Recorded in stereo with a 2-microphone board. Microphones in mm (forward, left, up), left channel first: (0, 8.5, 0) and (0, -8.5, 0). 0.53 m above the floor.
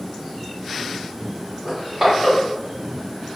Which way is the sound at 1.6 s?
25° right (ahead or behind).